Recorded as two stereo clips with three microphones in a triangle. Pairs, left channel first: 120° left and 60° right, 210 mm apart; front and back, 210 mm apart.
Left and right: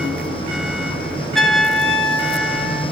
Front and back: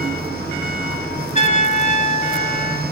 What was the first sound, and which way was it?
A trumpet, 30° left.